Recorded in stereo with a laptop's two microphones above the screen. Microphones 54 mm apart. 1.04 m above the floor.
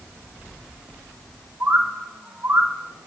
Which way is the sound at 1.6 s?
45° right (ahead or behind).